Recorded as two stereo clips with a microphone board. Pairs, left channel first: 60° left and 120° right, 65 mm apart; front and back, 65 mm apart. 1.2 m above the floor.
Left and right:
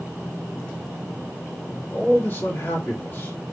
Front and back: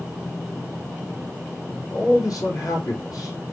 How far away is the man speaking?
About 2 m.